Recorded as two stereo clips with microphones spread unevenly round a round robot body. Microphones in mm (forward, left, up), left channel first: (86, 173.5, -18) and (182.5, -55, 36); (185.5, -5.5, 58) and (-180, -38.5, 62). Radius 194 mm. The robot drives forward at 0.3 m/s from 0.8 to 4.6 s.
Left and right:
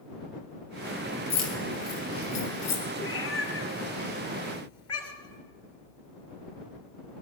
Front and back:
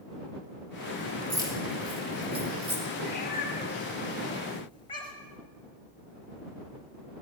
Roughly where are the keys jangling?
Left.